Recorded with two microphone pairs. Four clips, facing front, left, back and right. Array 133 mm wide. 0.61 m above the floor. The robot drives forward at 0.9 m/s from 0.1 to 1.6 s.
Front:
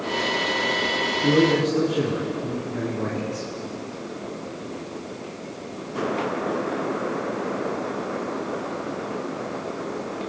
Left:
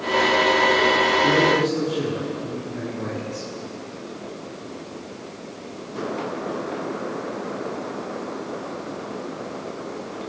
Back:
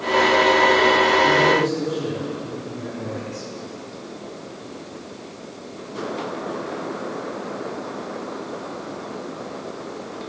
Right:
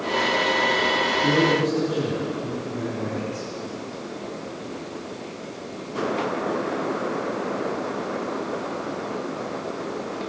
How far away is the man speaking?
About 7 m.